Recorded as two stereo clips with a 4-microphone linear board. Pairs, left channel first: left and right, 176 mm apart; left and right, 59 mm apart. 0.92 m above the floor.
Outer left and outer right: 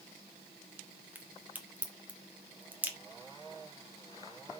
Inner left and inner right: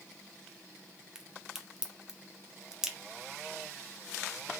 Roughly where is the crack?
Centre.